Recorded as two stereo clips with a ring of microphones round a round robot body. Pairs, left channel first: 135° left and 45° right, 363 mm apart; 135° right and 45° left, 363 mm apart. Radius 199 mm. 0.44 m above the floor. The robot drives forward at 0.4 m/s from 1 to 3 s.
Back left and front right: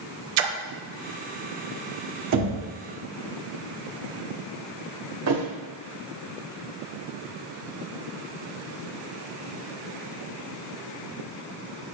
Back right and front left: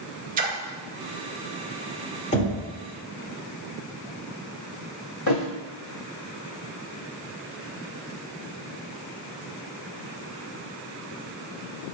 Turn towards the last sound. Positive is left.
turn(degrees=-90)